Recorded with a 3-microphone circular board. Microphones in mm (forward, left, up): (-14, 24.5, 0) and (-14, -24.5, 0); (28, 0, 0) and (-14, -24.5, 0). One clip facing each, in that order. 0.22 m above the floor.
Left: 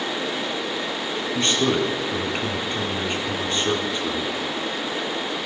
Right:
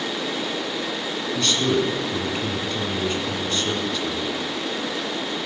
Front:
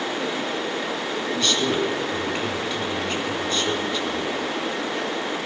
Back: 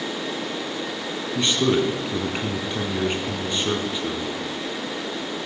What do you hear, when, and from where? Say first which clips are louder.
1.4 s a man speaking: even, back 3 dB; 150° left, 2 m